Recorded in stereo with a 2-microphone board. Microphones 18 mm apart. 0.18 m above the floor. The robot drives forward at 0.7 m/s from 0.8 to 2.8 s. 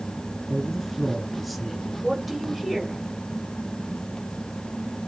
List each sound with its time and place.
0.5 s a man speaking: centre (ahead or behind), 2 m
2.0 s a woman speaking: 5° right (ahead or behind), 4.5 m